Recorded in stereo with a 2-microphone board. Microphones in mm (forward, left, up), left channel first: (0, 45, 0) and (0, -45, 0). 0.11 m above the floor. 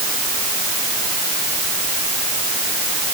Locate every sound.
Only background noise.